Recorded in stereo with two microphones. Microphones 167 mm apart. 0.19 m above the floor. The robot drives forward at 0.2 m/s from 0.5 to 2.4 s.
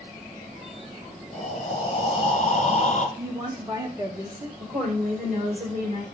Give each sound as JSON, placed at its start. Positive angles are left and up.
{"t": 1.3, "sound": "breathing", "side_deg": 45, "distance_m": 1.2}
{"t": 3.2, "sound": "a woman speaking", "side_deg": -25, "distance_m": 1.2}
{"t": 4.6, "sound": "a woman speaking", "side_deg": -60, "distance_m": 3.0}